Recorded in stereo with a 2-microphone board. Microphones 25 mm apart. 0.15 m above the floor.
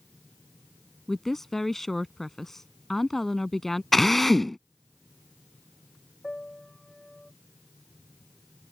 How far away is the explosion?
No explosion in this recording.